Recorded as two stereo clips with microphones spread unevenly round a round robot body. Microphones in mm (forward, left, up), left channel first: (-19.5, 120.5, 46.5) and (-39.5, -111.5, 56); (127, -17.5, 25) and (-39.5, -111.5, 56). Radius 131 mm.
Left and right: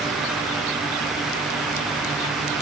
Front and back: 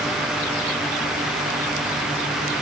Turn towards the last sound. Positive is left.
No sound to turn to.